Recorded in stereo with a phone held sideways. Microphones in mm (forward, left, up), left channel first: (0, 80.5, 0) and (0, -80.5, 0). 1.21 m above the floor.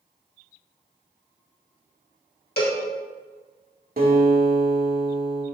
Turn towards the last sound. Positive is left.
turn(degrees=-65)  # may be behind; listen again after turning